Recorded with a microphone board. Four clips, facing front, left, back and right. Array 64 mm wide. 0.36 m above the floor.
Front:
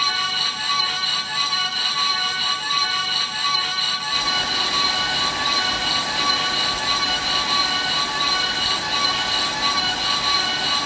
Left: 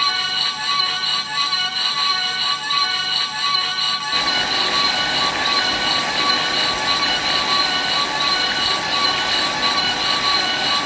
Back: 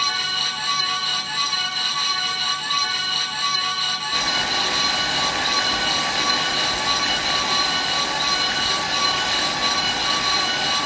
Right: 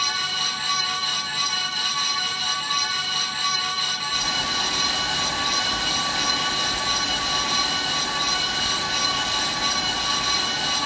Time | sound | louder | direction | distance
4.1 | boiling | left 6 dB, back 1 dB | 105° left | 4 m